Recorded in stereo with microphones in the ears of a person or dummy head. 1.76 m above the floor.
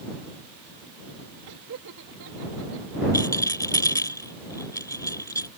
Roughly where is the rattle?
Centre.